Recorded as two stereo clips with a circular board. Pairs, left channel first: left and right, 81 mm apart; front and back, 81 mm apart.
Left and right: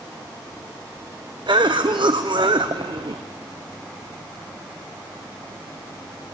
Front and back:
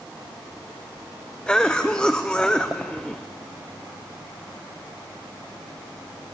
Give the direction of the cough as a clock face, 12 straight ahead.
3 o'clock.